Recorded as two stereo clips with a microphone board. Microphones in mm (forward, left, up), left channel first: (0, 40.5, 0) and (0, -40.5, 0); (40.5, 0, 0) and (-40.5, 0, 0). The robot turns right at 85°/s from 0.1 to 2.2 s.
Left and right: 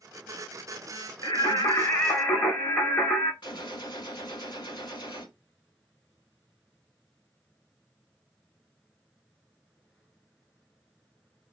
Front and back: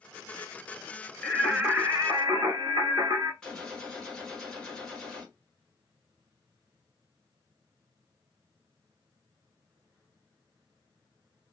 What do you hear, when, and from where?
1.2 s singing: 65° left, 1.2 m; by 3.3 s 150° left, 1.2 m
3.4 s a gunshot: 85° left, 1.4 m